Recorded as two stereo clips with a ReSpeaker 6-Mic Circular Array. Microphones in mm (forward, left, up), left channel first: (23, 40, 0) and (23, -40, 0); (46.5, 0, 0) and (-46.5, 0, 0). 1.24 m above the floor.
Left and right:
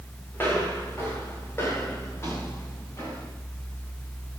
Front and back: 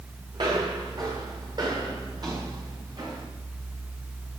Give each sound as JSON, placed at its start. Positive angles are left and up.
{"t": 0.3, "sound": "footsteps", "azimuth_deg": 155, "distance_m": 5.5}